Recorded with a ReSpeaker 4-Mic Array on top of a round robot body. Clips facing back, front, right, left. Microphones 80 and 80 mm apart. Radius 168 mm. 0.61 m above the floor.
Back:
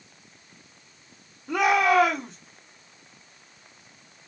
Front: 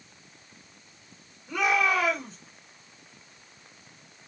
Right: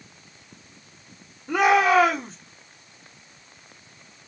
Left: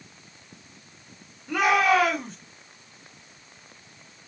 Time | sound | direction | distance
1.5 | a shout | 160° right | 2 m